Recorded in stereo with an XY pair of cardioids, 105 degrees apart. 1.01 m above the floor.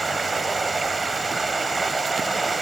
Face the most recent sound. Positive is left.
turn(degrees=-25)